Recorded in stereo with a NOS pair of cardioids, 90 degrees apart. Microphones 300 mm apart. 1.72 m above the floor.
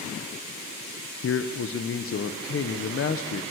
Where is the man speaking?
45° left, 1.4 m.